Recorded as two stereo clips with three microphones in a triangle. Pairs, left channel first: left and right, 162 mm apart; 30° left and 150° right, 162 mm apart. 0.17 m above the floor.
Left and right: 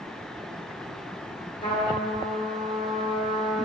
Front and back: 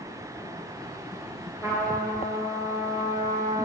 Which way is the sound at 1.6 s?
140° left.